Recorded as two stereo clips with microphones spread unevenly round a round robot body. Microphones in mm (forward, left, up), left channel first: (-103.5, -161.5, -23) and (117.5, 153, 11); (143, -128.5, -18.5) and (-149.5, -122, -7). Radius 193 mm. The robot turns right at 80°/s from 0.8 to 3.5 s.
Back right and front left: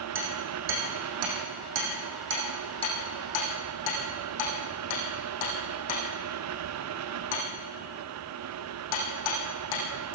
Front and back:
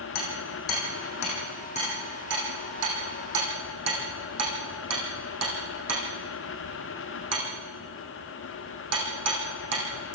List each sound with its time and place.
0.1 s hammering: 5° right, 8 m; by 10.2 s 150° right, 8 m